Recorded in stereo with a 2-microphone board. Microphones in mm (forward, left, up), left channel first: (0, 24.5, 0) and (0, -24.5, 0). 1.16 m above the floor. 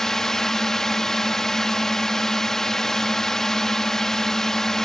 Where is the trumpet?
No trumpet in this recording.